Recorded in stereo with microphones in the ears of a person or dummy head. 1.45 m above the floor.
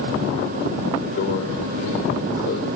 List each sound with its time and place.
1.2 s a microwave: 65° left (ahead or behind), 4 m